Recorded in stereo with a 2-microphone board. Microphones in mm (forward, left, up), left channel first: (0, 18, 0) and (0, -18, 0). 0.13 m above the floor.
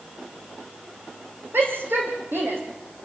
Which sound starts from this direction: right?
A shout, at 1.5 s.